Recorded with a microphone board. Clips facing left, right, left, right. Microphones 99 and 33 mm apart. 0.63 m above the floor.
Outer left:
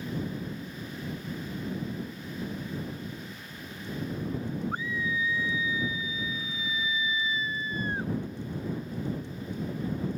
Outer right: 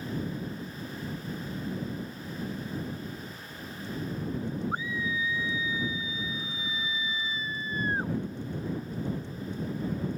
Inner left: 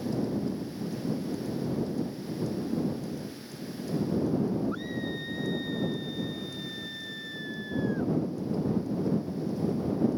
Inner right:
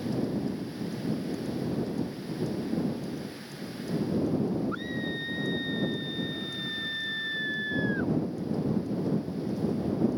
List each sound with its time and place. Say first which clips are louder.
4.7 s a scream: even, inner right 1 dB; 15° right (ahead or behind); by 8.1 s 40° right (ahead or behind)